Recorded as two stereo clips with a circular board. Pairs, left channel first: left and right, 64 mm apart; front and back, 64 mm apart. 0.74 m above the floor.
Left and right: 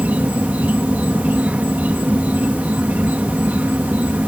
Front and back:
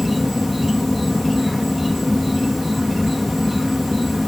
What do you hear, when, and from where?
0.0 s an insect: 95° right